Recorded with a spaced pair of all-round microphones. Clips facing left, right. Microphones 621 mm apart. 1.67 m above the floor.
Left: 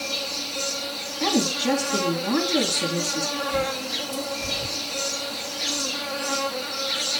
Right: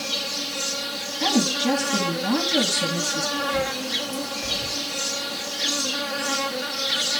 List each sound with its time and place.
0.0 s an insect: 40° right (ahead or behind), 1.2 m
1.2 s a woman speaking: 15° right (ahead or behind), 2.5 m
3.4 s a bird: 55° left (ahead or behind), 2.5 m